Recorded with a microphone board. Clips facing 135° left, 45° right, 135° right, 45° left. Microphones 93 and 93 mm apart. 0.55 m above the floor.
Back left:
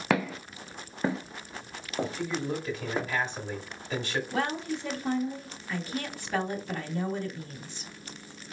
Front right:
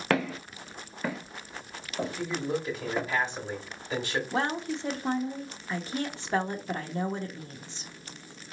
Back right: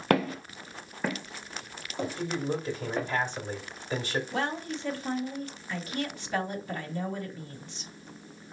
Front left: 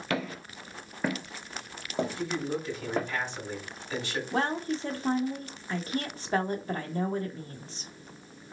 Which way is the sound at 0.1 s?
140° right.